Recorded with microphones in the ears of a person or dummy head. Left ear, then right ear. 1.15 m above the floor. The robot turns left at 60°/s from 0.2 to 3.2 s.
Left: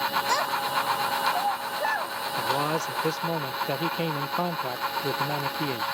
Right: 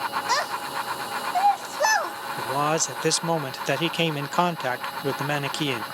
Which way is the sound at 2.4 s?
10° right.